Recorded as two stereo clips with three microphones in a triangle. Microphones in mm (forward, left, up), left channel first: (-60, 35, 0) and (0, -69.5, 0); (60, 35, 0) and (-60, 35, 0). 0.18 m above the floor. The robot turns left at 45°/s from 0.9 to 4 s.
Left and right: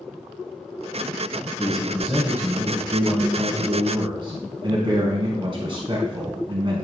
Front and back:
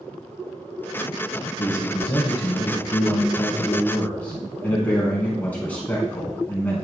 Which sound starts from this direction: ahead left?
A man speaking, at 1.6 s.